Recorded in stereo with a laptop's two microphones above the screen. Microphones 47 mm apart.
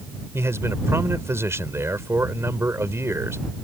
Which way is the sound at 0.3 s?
70° right (ahead or behind).